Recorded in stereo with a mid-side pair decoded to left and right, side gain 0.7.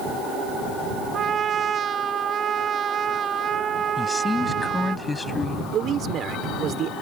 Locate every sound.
1.1 s a trumpet: 35° right
4.0 s a man speaking: 15° left
5.7 s a man speaking: 45° right